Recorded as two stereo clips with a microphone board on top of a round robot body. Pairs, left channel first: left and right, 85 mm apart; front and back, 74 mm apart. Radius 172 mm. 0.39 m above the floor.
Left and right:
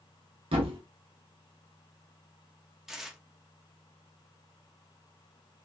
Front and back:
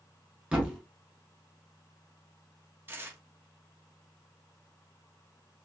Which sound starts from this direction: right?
A thud, at 0.5 s.